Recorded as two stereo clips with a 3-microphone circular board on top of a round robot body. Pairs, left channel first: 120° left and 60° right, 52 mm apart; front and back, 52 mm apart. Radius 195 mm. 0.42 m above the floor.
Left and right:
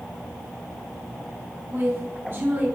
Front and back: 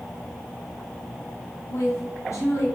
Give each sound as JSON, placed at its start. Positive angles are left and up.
{"t": 1.7, "sound": "a woman speaking", "azimuth_deg": -15, "distance_m": 5.0}